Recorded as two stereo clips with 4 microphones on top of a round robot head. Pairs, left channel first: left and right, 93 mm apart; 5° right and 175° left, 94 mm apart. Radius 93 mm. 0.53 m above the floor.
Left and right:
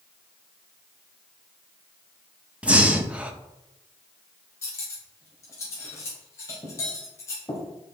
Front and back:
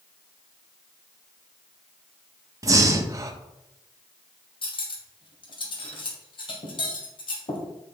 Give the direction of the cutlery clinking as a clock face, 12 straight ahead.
11 o'clock.